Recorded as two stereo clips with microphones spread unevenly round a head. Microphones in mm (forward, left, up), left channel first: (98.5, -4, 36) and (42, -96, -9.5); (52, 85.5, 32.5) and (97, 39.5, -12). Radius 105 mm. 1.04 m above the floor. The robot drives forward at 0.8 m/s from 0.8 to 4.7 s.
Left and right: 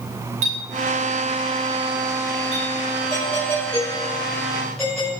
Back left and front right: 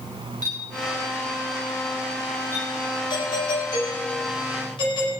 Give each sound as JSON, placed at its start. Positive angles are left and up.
{"t": 0.4, "sound": "a clink", "azimuth_deg": -160, "distance_m": 4.0}
{"t": 3.1, "sound": "a doorbell", "azimuth_deg": 140, "distance_m": 5.5}